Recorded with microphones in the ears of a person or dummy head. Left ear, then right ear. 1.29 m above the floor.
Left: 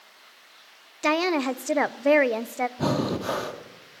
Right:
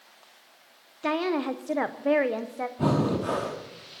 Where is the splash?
No splash in this recording.